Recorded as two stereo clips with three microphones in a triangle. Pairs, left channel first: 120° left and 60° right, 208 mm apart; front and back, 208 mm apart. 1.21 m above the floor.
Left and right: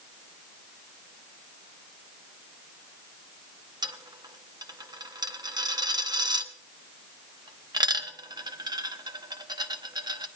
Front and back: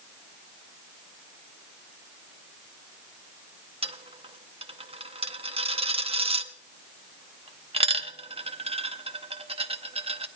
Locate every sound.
3.8 s a dropped coin: 125° right, 0.8 m